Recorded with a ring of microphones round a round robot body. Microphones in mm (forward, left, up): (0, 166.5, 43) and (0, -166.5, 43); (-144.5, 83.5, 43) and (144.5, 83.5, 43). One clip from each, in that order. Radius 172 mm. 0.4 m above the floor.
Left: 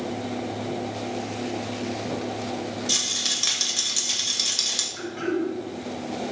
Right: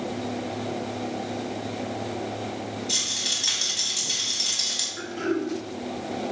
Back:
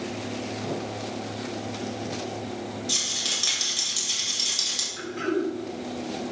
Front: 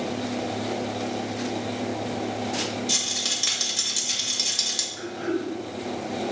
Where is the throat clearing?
160° left, 3 m.